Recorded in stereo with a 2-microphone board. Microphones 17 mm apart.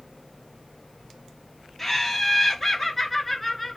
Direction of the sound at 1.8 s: Centre (ahead or behind).